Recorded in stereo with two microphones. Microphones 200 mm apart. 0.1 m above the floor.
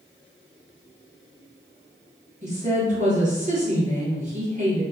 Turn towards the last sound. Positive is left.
turn(degrees=-40)  # may be behind; listen again after turning